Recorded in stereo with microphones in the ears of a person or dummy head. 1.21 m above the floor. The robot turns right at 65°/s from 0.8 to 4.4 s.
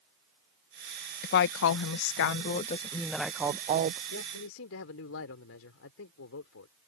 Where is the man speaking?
70° left (ahead or behind); by 6.7 s 85° left.